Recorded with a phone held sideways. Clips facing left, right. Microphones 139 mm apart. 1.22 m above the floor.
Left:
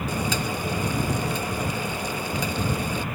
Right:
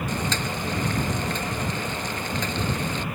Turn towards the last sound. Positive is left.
turn(degrees=10)  # may be behind; listen again after turning